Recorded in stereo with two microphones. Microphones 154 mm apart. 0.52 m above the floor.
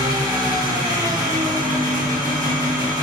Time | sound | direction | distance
0.0 | an engine running | 25° right (ahead or behind) | 0.9 m